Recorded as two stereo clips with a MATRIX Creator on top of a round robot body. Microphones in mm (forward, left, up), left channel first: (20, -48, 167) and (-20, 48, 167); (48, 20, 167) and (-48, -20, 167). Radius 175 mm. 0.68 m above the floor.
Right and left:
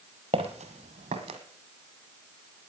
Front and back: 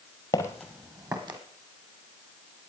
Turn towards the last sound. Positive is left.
turn(degrees=150)